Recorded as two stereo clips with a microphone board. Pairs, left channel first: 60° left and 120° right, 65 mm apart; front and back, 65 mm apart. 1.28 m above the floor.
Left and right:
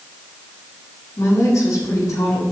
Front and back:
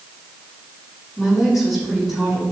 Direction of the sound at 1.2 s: 100° left.